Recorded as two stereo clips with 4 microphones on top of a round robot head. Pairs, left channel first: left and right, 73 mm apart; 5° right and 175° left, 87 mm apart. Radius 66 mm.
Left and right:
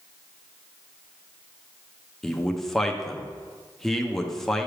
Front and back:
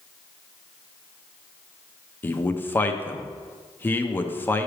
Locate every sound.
2.2 s a man speaking: 10° left, 0.7 m